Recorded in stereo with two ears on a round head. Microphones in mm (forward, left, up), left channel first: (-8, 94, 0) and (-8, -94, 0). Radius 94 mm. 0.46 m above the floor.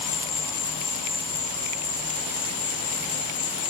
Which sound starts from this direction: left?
An insect, at 0.0 s.